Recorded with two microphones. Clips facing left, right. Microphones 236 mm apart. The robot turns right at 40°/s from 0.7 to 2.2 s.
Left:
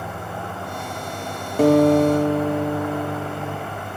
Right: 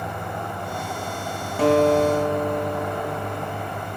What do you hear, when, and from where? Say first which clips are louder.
1.6 s a guitar: left 4 dB; 45° left (ahead or behind), 0.8 m; by 3.7 s 30° left (ahead or behind), 0.8 m